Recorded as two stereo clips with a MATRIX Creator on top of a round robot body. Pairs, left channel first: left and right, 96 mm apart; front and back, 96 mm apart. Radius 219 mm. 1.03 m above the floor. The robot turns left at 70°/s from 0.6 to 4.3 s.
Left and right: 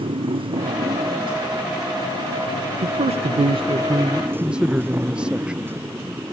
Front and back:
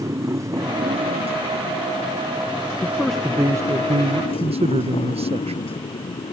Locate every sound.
0.0 s a motorcycle: 120° right; by 6.3 s 20° right
2.8 s a man speaking: 65° right; by 5.7 s 170° right